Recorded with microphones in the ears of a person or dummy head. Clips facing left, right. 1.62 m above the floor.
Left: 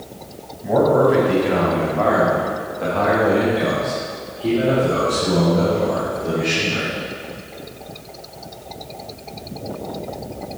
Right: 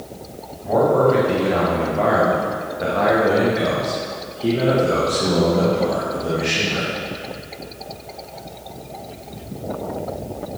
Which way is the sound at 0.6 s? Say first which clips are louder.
Left 1 dB; 15° left (ahead or behind).